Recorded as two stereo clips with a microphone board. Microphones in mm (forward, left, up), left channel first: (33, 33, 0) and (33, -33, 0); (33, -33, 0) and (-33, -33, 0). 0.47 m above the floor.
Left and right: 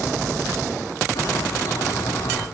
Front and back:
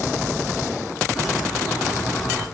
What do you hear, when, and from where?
1.1 s a bird: 90° left, 3.5 m